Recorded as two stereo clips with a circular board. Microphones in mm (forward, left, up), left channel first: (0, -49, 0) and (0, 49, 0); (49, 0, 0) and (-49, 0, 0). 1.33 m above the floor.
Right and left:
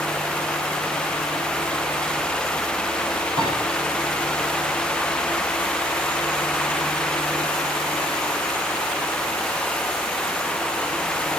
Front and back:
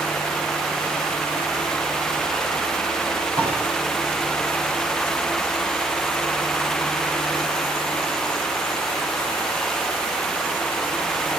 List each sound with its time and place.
3.4 s a piano: 125° left, 9.5 m